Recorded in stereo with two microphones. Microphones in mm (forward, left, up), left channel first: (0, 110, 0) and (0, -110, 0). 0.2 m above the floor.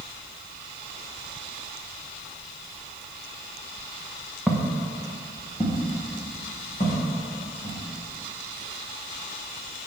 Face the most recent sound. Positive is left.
turn(degrees=45)  # may be behind; listen again after turning